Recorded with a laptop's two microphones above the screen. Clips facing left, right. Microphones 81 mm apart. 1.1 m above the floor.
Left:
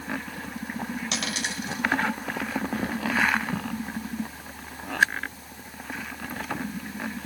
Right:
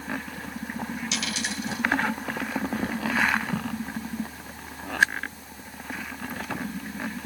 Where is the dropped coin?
60° left (ahead or behind), 1.8 m.